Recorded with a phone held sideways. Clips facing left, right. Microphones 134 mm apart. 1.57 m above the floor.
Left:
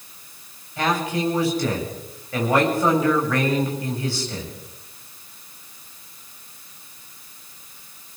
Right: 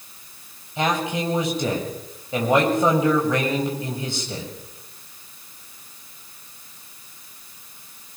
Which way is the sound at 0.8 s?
20° right (ahead or behind).